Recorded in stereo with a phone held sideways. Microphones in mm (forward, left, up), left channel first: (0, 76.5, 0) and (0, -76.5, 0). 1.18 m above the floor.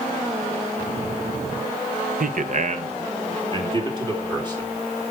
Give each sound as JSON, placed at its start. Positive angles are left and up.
{"t": 2.2, "sound": "a man speaking", "side_deg": -65, "distance_m": 0.8}